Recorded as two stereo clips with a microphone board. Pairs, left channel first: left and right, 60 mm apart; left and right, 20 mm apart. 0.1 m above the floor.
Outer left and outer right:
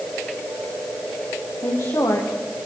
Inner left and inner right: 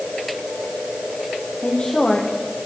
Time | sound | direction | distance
1.6 | a woman speaking | 75° left (ahead or behind) | 6.5 m